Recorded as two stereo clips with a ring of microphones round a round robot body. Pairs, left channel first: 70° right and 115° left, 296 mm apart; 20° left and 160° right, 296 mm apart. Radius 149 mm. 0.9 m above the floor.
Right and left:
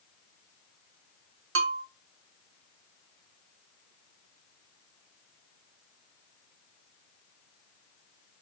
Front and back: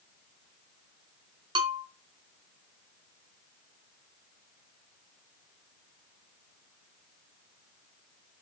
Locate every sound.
1.6 s a bell: 135° left, 0.5 m